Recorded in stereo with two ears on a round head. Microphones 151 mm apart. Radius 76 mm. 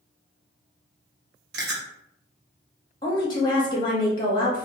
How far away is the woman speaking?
About 0.7 m.